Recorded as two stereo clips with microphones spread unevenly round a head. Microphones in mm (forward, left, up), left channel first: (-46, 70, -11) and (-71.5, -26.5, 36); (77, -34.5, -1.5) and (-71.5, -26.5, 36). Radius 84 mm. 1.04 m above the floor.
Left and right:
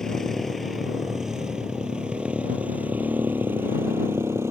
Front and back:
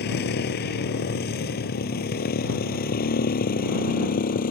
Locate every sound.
0.0 s a motorcycle: 15° right; by 4.5 s 30° right